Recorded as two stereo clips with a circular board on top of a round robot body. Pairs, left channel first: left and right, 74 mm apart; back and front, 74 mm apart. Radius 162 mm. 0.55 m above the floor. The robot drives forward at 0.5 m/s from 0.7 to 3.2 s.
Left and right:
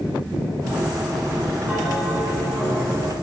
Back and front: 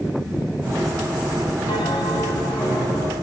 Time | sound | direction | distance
1.7 | a bell | 165° right | 7.5 m